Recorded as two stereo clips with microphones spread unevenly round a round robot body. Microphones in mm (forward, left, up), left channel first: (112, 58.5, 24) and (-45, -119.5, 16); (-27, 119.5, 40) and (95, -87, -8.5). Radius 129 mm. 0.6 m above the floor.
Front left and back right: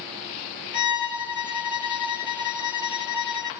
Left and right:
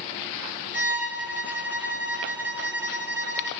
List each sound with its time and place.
0.7 s a violin: 25° left, 1.7 m